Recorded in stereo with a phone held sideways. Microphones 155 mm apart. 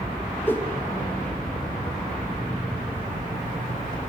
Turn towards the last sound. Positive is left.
turn(degrees=15)  # may be behind; listen again after turning